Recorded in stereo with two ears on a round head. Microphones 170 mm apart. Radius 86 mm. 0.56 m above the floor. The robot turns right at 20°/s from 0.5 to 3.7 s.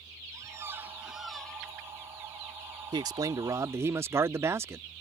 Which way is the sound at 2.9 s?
25° right (ahead or behind).